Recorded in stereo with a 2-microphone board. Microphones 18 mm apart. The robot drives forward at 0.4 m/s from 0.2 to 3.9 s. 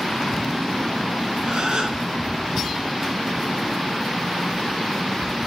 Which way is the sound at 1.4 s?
45° right (ahead or behind).